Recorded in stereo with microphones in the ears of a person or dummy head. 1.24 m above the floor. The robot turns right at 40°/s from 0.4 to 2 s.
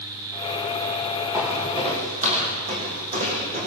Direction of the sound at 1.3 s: 15° right (ahead or behind).